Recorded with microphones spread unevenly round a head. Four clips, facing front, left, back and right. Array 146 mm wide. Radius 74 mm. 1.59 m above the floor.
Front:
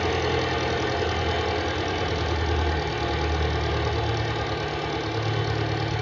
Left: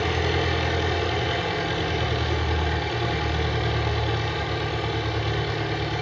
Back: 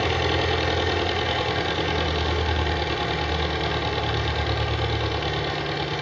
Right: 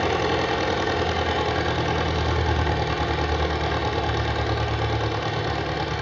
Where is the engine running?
105° right, 2.0 m.